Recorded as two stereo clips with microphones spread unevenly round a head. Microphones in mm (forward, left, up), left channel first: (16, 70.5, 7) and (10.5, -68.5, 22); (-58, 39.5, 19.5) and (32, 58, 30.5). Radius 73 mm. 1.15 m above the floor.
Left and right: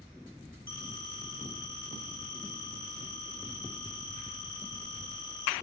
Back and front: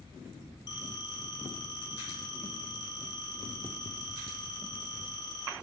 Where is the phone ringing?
145° left, 9.5 m.